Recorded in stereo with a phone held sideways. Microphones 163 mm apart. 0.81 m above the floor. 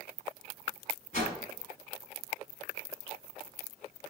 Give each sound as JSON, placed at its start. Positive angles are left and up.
{"t": 1.1, "sound": "a whoosh", "side_deg": 50, "distance_m": 1.3}